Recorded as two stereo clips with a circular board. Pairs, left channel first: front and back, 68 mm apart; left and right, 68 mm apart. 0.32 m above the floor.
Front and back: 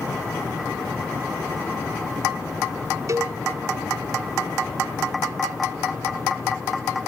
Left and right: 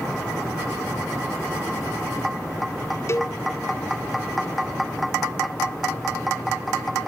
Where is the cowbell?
140° left, 0.8 m.